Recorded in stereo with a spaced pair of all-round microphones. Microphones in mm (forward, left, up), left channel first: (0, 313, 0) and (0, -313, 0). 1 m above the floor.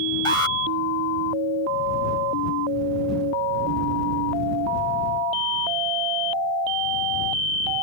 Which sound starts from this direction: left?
An alarm, at 0.2 s.